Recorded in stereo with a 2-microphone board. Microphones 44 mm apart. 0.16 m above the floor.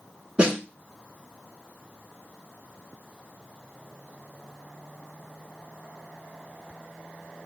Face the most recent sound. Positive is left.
turn(degrees=-25)  # may be behind; listen again after turning